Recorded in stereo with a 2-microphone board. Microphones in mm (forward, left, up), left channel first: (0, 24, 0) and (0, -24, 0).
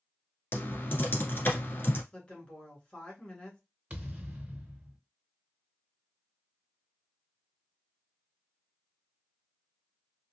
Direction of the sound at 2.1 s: 25° left (ahead or behind).